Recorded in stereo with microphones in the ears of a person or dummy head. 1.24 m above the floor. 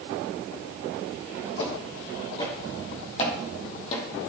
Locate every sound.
1.6 s footsteps: 30° left (ahead or behind), 4 m; by 4.1 s 40° left (ahead or behind), 2.5 m